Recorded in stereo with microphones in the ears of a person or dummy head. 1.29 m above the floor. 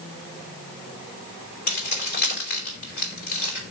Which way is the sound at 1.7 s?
40° left (ahead or behind).